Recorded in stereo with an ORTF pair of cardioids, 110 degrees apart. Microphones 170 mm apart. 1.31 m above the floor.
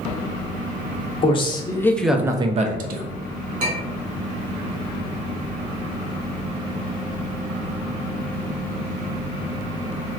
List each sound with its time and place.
1.2 s a man speaking: 35° left, 0.9 m; by 3.1 s 70° right, 0.7 m
3.6 s a clink: 50° right, 1.6 m